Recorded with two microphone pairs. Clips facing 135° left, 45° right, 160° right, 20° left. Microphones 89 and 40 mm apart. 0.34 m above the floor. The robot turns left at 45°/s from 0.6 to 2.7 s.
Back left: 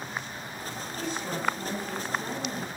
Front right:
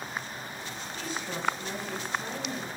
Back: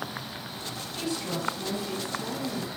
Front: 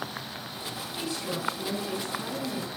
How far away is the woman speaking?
About 3 m.